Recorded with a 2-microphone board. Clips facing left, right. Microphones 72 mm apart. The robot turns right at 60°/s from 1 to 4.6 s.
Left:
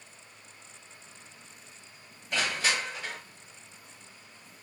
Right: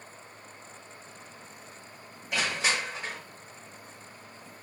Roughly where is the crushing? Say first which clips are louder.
Even; behind.